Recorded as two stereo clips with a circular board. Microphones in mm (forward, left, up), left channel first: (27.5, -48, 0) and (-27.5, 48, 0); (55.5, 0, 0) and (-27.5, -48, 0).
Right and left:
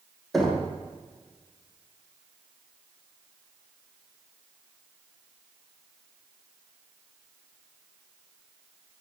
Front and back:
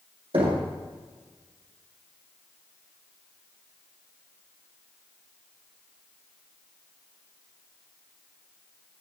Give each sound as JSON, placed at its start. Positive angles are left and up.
{"t": 0.3, "sound": "knocking", "azimuth_deg": -150, "distance_m": 4.0}